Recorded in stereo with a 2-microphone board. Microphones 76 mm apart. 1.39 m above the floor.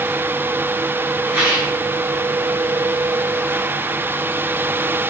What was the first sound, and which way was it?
A rattle, 25° right (ahead or behind).